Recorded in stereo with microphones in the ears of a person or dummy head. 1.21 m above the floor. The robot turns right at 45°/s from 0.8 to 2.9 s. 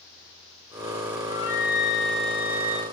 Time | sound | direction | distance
1.2 | a flute | 150° left | 4.5 m